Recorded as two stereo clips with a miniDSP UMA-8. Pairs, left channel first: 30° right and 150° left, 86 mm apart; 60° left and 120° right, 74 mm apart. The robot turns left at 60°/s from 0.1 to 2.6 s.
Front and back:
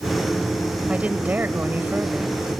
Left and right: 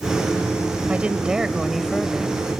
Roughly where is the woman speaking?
Behind.